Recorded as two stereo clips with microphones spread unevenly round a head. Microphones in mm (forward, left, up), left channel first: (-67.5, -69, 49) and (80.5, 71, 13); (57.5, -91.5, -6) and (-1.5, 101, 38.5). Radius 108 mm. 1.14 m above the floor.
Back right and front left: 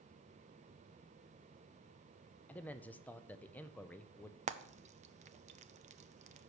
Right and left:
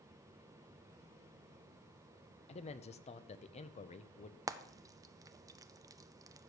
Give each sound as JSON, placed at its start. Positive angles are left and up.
{"t": 2.5, "sound": "a man speaking", "azimuth_deg": -45, "distance_m": 0.6}
{"t": 4.5, "sound": "frying", "azimuth_deg": 25, "distance_m": 0.5}